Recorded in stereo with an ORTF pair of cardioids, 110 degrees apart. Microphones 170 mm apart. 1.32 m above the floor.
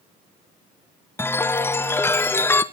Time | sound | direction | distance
1.2 | a chime | 15° left | 0.8 m